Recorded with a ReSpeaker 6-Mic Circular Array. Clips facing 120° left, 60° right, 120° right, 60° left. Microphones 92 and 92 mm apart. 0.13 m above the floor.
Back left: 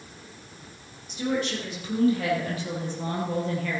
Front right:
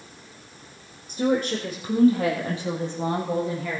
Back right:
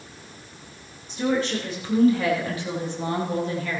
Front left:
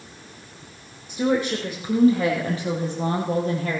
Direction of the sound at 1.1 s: 10° right.